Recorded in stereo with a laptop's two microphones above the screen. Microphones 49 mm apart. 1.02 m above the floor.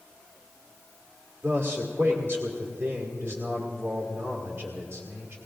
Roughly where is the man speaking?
Right.